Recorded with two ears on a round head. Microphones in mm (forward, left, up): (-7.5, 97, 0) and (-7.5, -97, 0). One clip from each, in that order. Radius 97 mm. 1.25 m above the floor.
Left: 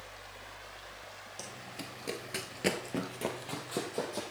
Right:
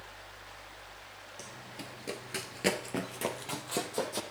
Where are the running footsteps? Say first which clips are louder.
Left 2 dB; 15° left (ahead or behind), 1.6 m; by 4.2 s 20° right (ahead or behind), 2.5 m.